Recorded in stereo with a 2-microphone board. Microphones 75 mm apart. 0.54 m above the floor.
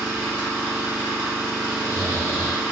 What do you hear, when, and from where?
0.0 s an engine running: 15° right (ahead or behind), 0.8 m
1.7 s snoring: 25° right (ahead or behind), 1.1 m